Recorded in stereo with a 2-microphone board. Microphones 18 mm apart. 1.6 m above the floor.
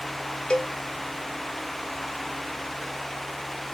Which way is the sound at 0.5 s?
80° left.